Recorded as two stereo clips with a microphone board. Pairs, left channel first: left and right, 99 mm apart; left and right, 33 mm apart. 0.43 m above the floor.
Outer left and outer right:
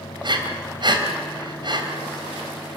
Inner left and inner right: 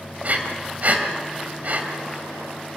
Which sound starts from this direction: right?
Breathing, at 0.2 s.